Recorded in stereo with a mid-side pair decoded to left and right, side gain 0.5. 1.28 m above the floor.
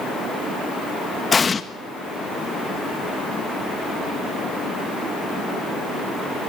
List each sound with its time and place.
1.3 s an explosion: 25° left, 1.7 m